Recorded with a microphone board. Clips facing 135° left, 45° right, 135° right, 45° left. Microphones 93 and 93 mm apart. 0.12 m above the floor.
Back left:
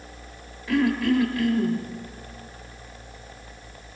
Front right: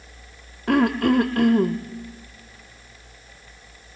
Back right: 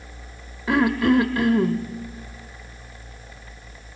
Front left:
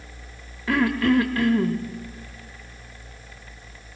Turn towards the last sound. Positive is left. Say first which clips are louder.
# front right 3 dB, back right 2 dB
turn(degrees=-65)